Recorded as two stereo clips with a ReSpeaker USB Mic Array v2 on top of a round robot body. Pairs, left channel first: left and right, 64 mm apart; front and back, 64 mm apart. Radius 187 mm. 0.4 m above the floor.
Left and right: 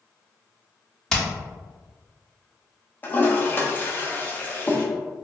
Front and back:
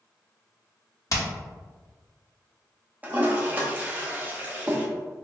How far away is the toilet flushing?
About 1.1 m.